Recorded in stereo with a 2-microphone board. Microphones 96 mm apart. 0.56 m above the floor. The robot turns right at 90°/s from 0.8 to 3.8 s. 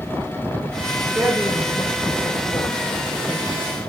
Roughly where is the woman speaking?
Centre.